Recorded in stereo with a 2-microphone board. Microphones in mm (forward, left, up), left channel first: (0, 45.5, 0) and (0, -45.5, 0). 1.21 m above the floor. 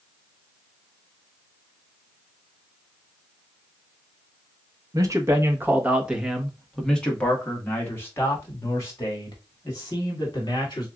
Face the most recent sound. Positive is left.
turn(degrees=45)  # may be behind; listen again after turning